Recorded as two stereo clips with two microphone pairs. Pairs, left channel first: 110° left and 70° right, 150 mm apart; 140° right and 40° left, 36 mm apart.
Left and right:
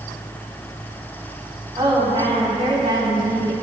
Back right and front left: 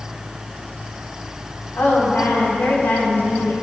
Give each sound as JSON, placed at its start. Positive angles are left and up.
{"t": 1.8, "sound": "a woman speaking", "azimuth_deg": -125, "distance_m": 3.5}